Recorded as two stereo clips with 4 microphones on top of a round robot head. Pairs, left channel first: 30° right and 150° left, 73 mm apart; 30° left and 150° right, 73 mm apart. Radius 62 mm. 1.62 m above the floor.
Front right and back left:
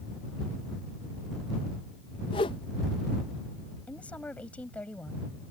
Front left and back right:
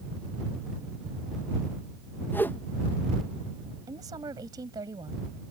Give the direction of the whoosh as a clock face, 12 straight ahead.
1 o'clock.